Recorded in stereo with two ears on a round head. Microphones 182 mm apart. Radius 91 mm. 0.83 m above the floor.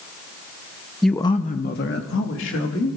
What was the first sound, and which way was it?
A man speaking, centre (ahead or behind).